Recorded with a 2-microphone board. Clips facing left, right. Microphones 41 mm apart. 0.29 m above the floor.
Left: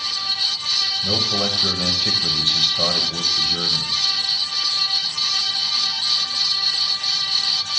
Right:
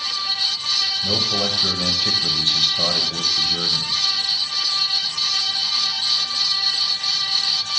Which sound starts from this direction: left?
A man speaking, at 1.0 s.